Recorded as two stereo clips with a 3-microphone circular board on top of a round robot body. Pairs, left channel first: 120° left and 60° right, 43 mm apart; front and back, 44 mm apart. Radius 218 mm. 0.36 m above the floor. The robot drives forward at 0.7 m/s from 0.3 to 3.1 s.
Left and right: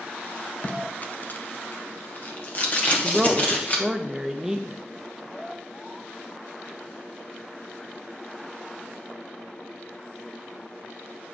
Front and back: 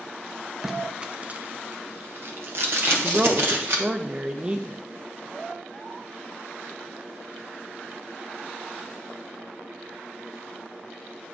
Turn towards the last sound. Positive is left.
turn(degrees=-135)